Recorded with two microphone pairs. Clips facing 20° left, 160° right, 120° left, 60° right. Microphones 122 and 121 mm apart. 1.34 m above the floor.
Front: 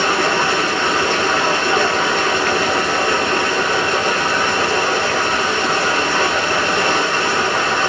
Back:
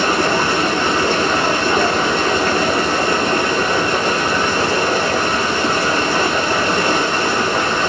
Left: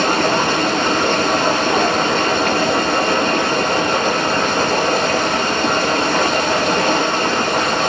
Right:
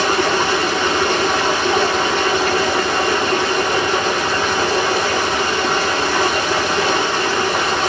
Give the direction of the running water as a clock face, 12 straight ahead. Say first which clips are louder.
Back 1 dB, left 1 dB; 8 o'clock.